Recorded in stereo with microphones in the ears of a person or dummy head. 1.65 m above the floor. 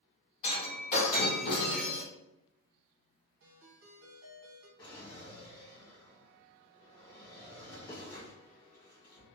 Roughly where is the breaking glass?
Left.